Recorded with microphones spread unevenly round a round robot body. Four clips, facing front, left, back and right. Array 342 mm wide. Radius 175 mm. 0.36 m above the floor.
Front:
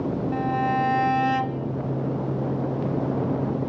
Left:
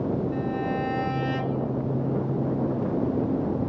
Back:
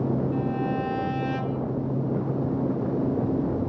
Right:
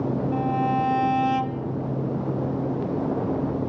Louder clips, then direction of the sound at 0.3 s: Right 4 dB, front 3 dB; 45° right.